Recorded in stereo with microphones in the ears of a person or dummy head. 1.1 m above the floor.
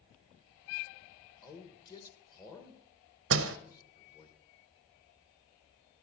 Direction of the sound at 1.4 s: 25° left (ahead or behind).